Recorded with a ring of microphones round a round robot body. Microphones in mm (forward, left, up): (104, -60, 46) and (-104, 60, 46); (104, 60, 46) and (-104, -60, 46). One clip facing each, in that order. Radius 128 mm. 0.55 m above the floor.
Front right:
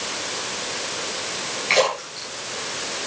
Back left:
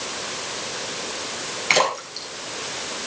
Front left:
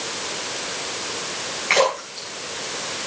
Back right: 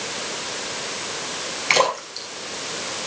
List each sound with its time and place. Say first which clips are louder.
1.7 s a splash: front right 3 dB, front left 2 dB; 175° left, 6.5 m